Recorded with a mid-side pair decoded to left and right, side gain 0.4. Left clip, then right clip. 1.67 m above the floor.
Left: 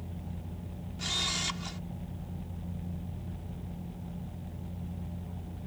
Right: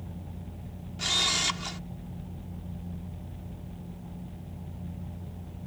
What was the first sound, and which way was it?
A camera shutter, 45° right.